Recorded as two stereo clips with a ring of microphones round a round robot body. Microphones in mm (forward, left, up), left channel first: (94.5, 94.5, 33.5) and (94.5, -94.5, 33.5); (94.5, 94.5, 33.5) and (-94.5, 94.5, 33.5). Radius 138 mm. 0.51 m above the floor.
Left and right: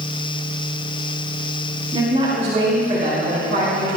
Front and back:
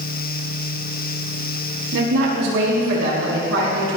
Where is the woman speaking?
160° right, 4 m; by 4.0 s 145° right, 6 m.